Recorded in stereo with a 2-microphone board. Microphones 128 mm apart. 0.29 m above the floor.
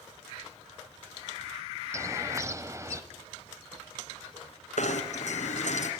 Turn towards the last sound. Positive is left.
turn(degrees=70)  # may be behind; listen again after turning